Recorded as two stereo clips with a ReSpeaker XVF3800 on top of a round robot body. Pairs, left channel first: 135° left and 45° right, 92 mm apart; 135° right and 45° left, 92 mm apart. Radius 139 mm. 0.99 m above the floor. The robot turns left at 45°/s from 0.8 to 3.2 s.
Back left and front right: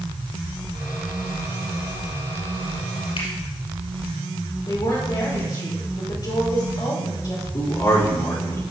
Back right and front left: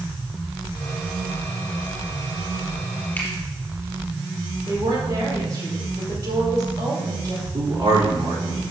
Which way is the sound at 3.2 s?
155° left.